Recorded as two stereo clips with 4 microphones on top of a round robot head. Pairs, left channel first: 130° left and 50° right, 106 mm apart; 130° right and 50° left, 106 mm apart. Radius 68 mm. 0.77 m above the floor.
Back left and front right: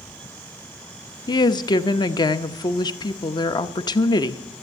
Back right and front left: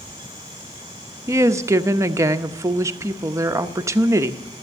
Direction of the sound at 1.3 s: 100° left.